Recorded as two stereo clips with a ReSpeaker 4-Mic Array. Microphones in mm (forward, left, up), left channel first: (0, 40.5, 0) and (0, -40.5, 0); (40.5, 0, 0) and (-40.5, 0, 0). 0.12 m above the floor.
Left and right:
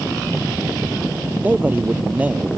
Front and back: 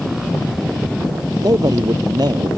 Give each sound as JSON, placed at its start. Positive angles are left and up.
{"t": 1.4, "sound": "a man speaking", "azimuth_deg": -155}